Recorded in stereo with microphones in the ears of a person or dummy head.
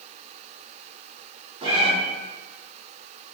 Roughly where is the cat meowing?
Right.